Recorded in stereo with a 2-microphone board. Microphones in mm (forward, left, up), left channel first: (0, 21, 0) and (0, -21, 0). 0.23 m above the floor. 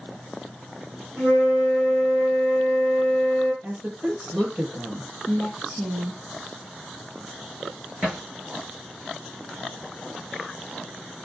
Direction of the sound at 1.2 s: 40° right (ahead or behind).